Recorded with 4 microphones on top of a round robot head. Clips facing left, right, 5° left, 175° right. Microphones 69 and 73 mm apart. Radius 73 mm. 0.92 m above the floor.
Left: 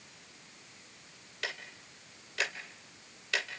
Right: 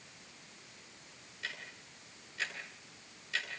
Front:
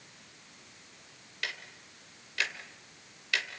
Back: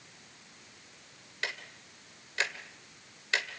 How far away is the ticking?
About 1.9 m.